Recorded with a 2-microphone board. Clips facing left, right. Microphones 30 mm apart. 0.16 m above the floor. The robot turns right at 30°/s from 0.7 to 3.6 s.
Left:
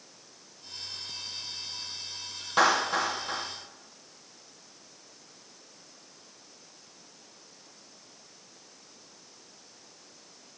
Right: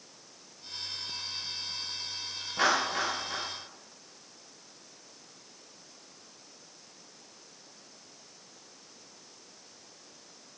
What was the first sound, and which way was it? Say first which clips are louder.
A clap: left 3 dB; 75° left (ahead or behind).